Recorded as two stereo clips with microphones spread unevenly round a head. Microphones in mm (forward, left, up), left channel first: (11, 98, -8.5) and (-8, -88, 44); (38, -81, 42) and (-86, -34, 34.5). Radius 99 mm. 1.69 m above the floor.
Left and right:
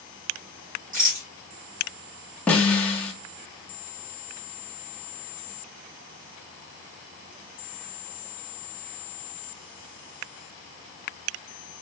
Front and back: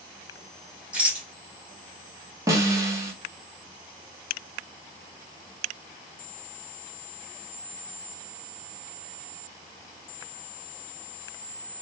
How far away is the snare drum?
About 1.2 m.